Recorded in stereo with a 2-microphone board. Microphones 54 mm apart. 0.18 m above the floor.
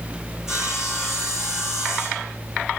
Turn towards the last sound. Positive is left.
turn(degrees=-10)  # may be behind; listen again after turning